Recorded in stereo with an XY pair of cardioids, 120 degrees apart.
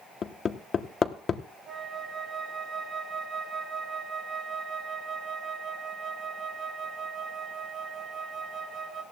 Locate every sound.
0.2 s hammering: 40° left, 1.1 m
1.7 s a flute: 45° right, 2.5 m